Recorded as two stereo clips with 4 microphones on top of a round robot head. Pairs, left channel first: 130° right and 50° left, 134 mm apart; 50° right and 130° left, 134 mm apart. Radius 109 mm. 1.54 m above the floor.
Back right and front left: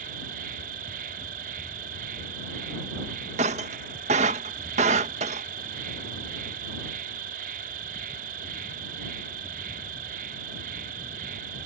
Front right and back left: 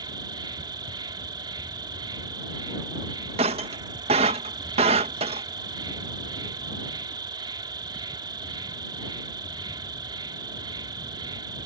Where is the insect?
70° left.